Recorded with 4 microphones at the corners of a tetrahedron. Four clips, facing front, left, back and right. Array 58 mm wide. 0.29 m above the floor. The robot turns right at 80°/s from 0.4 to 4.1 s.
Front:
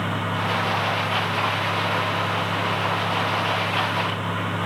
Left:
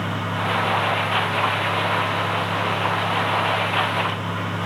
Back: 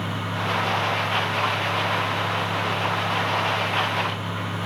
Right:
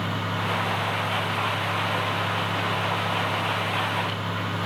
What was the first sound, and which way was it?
Only background noise.